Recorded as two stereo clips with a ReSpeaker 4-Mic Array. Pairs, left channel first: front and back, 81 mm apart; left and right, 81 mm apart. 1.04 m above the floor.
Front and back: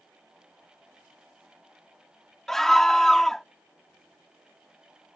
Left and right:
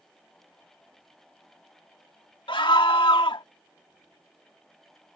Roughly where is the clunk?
No clunk in this recording.